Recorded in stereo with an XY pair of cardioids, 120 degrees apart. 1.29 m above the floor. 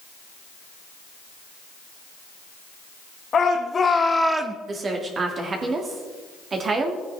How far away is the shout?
About 1.5 m.